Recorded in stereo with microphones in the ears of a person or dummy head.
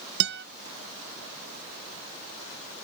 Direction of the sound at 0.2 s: 50° right (ahead or behind).